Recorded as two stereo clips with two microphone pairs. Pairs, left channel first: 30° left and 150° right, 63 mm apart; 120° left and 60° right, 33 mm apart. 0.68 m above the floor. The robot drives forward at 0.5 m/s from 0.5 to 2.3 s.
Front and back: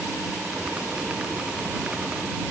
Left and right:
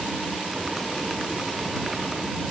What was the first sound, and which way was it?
Only background noise.